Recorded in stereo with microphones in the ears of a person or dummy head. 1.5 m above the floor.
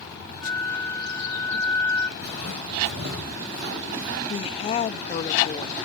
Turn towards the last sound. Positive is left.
turn(degrees=35)  # may be behind; listen again after turning